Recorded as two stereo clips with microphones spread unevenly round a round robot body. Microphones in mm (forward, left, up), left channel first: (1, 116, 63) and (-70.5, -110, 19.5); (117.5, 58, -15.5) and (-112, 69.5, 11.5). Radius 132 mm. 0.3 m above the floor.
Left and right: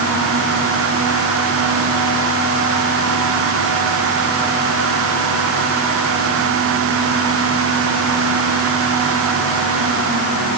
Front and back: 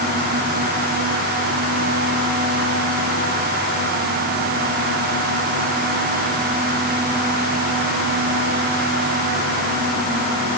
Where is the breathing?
I don't hear breathing.